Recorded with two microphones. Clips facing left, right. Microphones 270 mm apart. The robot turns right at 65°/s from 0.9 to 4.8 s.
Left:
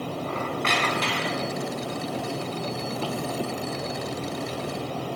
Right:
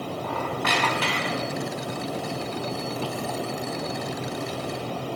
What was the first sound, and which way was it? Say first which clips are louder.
A squeak: right 1 dB; 155° left.